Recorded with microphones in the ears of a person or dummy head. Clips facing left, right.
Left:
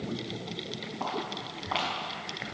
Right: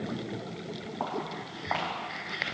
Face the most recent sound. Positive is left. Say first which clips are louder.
# even
turn(degrees=-75)  # may be behind; listen again after turning